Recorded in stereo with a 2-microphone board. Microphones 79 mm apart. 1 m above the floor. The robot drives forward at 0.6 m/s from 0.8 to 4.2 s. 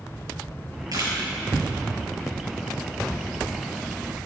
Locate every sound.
0.9 s a camera shutter: 55° right (ahead or behind), 4.5 m